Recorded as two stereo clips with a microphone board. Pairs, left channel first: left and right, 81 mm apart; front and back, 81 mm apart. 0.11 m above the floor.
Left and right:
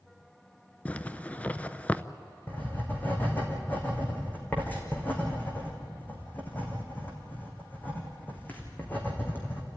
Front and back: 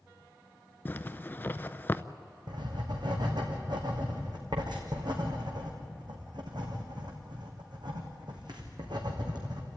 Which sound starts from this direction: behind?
Writing, at 2.5 s.